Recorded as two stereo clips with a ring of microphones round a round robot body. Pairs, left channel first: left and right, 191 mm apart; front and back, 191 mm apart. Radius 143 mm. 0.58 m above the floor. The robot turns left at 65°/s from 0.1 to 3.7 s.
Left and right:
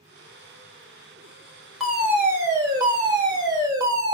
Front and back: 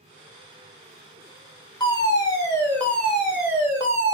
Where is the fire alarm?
Straight ahead, 1.9 m; by 4.2 s 125° right, 1.9 m.